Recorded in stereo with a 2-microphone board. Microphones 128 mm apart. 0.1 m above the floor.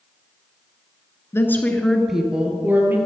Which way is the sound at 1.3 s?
20° left (ahead or behind).